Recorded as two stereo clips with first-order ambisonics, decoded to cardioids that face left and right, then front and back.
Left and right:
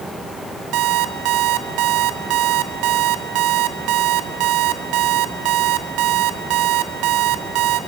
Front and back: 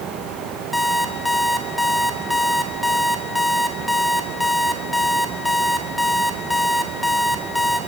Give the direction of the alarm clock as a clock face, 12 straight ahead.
3 o'clock.